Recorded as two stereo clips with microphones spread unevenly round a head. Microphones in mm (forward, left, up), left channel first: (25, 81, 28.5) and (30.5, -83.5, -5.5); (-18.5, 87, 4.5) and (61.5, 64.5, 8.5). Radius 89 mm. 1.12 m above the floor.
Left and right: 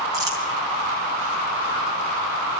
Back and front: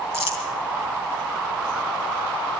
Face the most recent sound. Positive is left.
turn(degrees=-160)